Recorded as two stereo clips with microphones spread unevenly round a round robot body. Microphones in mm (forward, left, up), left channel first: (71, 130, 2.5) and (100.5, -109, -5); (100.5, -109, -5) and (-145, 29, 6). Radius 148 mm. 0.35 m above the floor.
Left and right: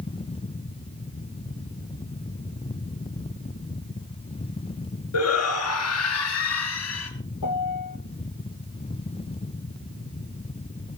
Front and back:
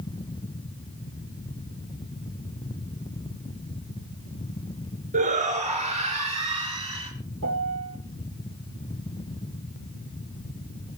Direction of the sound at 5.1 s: 85° left.